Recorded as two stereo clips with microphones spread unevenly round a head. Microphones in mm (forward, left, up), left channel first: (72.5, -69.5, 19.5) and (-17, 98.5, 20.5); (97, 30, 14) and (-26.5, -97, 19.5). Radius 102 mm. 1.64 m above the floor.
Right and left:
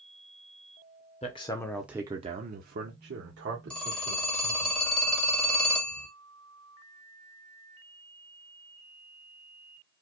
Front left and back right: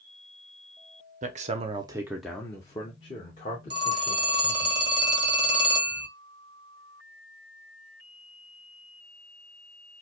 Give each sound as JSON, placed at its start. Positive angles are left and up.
{"t": 1.2, "sound": "a man speaking", "azimuth_deg": -110, "distance_m": 0.7}
{"t": 3.7, "sound": "a phone ringing", "azimuth_deg": -140, "distance_m": 0.9}